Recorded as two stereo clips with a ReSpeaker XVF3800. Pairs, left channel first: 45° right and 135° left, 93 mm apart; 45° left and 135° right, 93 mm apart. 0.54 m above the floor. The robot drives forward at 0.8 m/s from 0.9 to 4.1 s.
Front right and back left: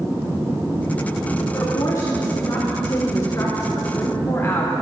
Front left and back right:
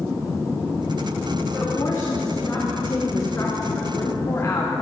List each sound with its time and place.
1.5 s a woman speaking: 5° left, 3.5 m; by 4.7 s 10° left, 1.4 m